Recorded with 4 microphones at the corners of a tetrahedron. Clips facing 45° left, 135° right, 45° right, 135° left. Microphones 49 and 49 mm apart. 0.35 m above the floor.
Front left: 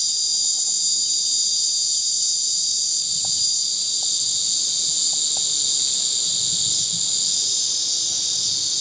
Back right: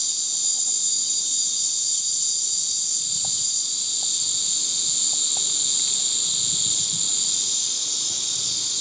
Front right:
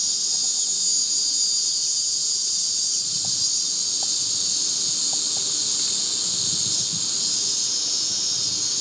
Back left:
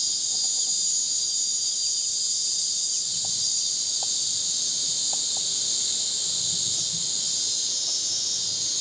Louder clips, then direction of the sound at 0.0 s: Front left 4 dB, front right 2 dB; 65° right.